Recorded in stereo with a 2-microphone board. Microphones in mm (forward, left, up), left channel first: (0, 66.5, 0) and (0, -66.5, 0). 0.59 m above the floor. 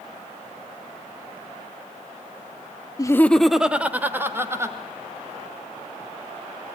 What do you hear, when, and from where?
3.0 s laughter: 25° left (ahead or behind), 0.7 m; by 4.8 s 20° right (ahead or behind), 2.5 m